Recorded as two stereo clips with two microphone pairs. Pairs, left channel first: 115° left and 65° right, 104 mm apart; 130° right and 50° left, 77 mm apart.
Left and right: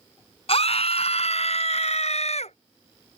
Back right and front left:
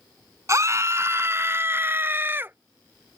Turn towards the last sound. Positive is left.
turn(degrees=115)